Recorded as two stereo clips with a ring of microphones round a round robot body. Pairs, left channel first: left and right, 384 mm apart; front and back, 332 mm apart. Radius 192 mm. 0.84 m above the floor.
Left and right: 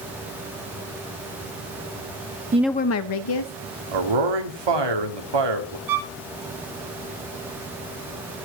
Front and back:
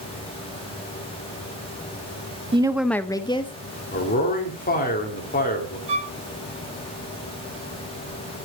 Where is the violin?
110° right, 1.0 m.